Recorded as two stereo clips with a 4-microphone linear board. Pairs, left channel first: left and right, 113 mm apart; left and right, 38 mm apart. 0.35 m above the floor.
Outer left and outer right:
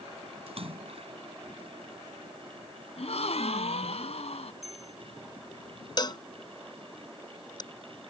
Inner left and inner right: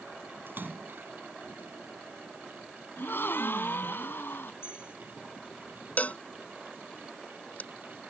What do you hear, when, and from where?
0.5 s a splash: 60° right (ahead or behind)
3.0 s a gasp: 65° left (ahead or behind)
4.6 s a bell: 70° left (ahead or behind)
6.0 s a cowbell: 40° left (ahead or behind)